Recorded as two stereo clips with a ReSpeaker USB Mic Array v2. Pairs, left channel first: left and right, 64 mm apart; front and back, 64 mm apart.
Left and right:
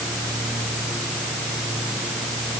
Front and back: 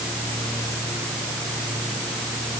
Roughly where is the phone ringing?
No phone ringing in this recording.